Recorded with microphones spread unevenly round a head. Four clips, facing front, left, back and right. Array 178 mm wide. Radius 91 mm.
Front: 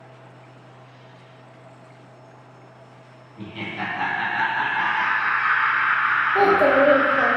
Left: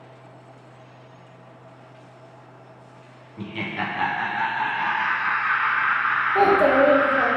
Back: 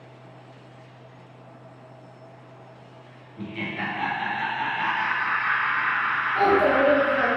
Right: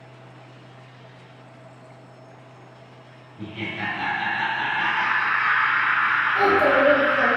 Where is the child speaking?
35° left, 0.9 m.